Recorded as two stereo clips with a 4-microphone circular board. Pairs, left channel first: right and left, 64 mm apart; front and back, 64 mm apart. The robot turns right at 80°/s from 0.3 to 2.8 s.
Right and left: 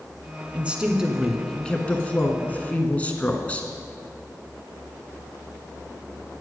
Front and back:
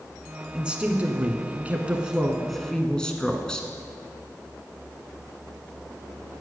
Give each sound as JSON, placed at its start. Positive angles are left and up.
{"t": 0.5, "sound": "a woman speaking", "azimuth_deg": 120, "distance_m": 1.1}